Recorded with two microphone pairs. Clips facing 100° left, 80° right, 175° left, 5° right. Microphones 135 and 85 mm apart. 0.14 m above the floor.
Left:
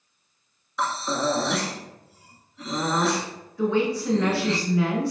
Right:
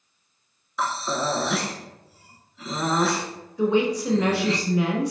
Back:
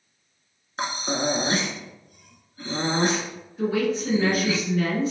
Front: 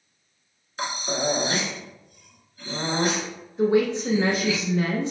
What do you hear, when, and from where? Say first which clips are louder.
0.8 s breathing: even, back 1 dB; 170° right, 0.8 m
3.6 s a woman speaking: right 2 dB, front 3 dB; 20° right, 1.3 m